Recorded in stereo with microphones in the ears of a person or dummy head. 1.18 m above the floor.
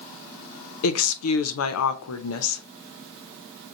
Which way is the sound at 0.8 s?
90° left.